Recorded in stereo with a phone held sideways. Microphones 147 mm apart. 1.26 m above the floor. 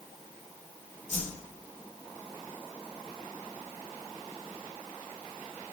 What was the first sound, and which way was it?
A whoosh, 60° left (ahead or behind).